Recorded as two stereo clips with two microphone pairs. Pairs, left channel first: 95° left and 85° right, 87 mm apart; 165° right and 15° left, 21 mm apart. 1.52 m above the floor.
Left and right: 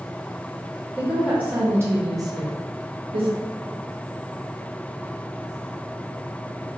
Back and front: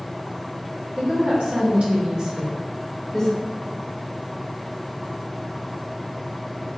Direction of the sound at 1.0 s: 5° right.